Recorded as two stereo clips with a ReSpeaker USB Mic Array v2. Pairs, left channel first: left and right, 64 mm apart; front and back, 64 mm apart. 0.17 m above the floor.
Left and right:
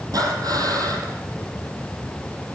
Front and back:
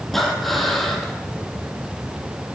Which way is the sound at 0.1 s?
85° right.